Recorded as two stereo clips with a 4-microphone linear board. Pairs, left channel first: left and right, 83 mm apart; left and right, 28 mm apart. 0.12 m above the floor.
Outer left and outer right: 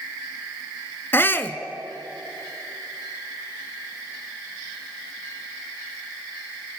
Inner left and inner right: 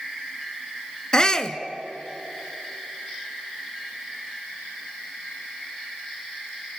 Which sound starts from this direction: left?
A shout, at 1.1 s.